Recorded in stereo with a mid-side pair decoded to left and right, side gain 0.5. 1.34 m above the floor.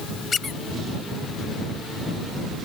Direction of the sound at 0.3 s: 40° left.